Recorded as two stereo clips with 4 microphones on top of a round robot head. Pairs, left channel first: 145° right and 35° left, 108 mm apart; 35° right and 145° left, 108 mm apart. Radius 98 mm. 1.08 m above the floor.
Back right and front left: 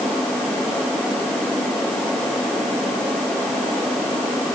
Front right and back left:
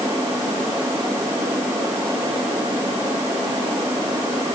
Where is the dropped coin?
No dropped coin in this recording.